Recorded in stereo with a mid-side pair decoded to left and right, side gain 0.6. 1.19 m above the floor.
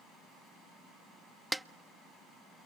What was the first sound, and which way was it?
A snare drum, 5° right.